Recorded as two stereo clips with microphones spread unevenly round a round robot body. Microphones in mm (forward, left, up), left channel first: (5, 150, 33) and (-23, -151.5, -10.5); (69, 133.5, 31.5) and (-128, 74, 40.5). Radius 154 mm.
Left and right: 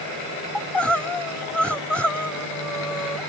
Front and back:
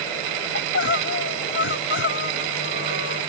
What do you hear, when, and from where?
0.6 s crying: 5° right